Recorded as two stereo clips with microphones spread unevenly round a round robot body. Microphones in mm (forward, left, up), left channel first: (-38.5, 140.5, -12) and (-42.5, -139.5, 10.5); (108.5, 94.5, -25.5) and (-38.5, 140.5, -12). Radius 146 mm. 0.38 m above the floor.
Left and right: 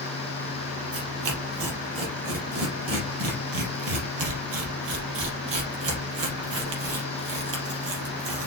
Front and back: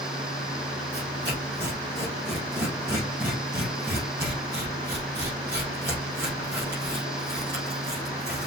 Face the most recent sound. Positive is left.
turn(degrees=-100)